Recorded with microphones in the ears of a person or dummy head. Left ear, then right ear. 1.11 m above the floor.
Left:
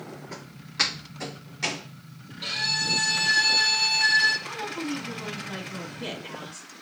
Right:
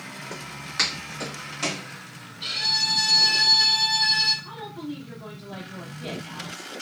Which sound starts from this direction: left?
A woman speaking, at 4.4 s.